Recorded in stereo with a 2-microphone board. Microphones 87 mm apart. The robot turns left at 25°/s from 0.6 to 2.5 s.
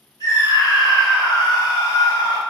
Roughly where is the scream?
Left.